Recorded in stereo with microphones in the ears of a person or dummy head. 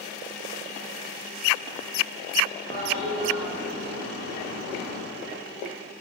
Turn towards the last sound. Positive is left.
turn(degrees=-65)  # may be behind; listen again after turning